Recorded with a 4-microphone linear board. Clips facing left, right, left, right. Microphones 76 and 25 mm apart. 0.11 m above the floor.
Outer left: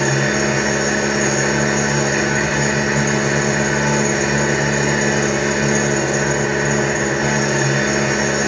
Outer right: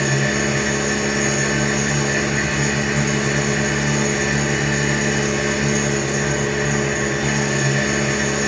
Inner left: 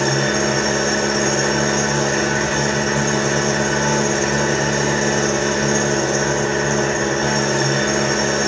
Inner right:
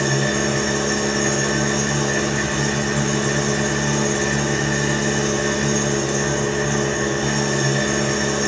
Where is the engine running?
60° left (ahead or behind), 3.5 m.